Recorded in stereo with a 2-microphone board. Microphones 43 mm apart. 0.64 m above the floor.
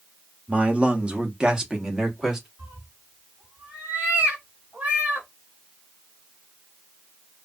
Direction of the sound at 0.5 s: 30° right (ahead or behind).